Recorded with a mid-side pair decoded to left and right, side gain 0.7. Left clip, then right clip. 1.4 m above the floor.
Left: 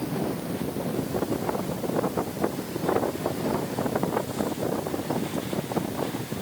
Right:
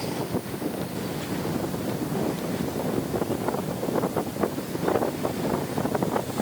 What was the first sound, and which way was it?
Only background noise.